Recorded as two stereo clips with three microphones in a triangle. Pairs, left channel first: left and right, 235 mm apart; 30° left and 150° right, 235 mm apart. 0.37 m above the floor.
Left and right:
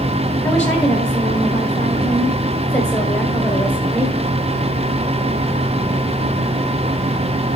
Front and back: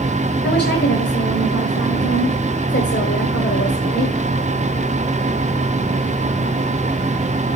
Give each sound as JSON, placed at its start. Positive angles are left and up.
{"t": 0.4, "sound": "a woman speaking", "azimuth_deg": 20, "distance_m": 2.0}